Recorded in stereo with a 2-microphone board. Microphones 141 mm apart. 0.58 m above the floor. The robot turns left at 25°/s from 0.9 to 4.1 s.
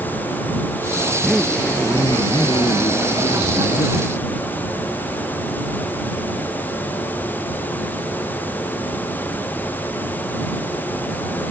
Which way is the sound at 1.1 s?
Straight behind.